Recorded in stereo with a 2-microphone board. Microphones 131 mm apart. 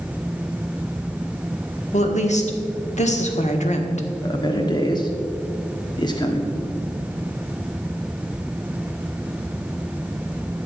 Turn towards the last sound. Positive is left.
turn(degrees=35)  # may be behind; listen again after turning